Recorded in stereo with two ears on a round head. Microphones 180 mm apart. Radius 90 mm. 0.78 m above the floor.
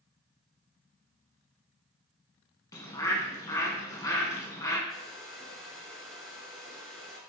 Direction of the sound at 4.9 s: Centre (ahead or behind).